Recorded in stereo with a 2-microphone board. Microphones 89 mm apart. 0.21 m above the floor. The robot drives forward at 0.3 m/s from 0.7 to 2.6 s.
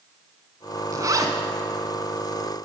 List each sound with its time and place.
0.9 s a zipper: 40° right (ahead or behind), 1.1 m; by 1.3 s 45° right (ahead or behind), 1.0 m